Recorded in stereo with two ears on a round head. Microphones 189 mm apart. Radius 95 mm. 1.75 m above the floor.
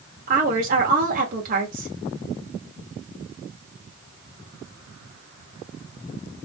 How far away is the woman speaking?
About 1.4 m.